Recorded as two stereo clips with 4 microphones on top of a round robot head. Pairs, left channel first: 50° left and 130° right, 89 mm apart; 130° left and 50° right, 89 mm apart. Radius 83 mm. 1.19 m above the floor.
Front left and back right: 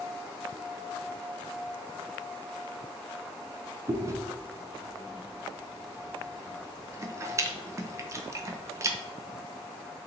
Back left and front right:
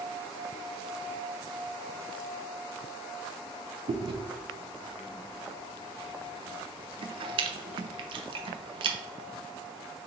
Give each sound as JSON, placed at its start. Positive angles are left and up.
{"t": 3.9, "sound": "chewing", "azimuth_deg": -70, "distance_m": 0.6}